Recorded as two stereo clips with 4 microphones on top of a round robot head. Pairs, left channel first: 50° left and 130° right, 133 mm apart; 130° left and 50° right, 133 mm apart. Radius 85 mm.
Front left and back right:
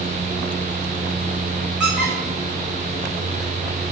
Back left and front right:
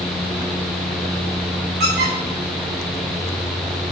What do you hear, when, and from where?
1.8 s a squeak: 50° right, 3.5 m